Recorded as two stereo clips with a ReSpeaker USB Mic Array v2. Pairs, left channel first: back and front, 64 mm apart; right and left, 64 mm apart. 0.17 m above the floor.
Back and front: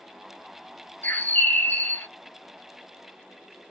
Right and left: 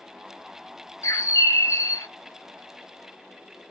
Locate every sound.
1.0 s a bird: 120° right, 0.8 m